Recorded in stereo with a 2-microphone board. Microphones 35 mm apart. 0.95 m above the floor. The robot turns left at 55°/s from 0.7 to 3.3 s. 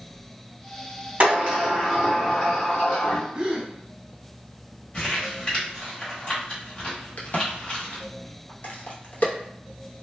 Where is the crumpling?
30° left (ahead or behind), 1.3 m.